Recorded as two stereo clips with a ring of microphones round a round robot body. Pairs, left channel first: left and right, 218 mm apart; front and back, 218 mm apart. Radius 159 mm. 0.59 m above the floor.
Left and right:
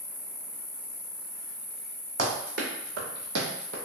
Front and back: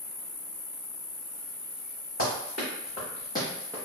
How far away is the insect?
About 0.8 m.